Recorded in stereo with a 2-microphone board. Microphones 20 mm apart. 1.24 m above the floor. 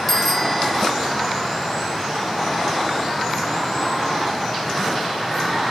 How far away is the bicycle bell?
About 5 m.